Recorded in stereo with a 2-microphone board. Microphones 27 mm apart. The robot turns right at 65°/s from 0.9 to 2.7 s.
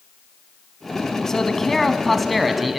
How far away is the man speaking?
About 1.0 m.